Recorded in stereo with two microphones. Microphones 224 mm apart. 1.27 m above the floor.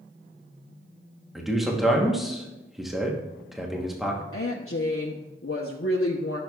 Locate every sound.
1.4 s a man speaking: centre (ahead or behind), 1.0 m
4.3 s a woman speaking: 70° left (ahead or behind), 0.8 m